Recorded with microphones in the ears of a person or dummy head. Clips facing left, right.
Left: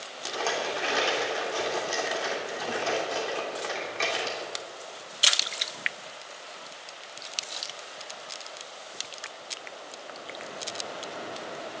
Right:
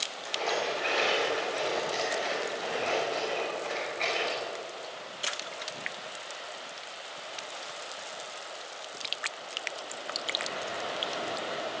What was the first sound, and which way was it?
A rattle, 80° left.